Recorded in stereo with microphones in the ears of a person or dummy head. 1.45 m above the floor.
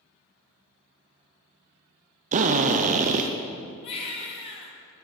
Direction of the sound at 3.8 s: 30° left (ahead or behind).